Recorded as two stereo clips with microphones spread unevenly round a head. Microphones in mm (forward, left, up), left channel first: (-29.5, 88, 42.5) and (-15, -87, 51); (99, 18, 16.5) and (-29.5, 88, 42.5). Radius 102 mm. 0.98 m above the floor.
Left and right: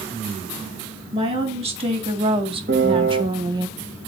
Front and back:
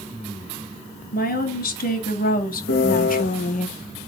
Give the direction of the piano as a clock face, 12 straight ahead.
2 o'clock.